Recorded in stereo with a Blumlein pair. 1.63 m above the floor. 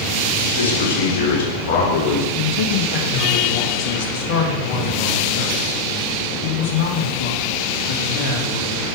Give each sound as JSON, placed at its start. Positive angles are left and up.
{"t": 0.5, "sound": "a man speaking", "azimuth_deg": 60, "distance_m": 2.5}
{"t": 2.4, "sound": "a man speaking", "azimuth_deg": 45, "distance_m": 1.9}